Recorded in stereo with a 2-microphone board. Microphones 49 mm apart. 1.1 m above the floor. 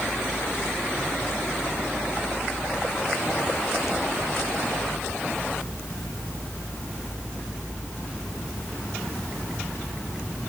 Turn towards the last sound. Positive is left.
No sound to turn to.